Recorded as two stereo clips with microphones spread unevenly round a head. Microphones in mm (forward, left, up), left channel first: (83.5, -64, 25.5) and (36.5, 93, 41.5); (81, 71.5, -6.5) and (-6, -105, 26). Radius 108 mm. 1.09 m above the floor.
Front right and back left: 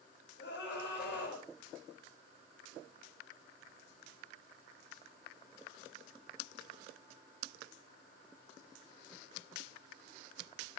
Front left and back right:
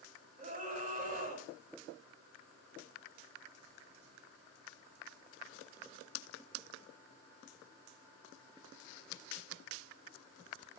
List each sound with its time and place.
0.4 s a scream: 60° right, 8.5 m